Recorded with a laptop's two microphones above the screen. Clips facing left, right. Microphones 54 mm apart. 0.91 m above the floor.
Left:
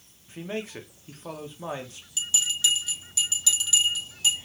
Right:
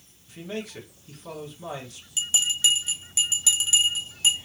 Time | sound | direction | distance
0.3 | a man speaking | 30° left (ahead or behind) | 0.8 m
2.2 | a bell | 25° right (ahead or behind) | 1.0 m